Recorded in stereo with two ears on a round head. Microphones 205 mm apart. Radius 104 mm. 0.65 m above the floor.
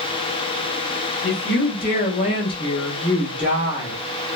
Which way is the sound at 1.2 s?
50° left (ahead or behind).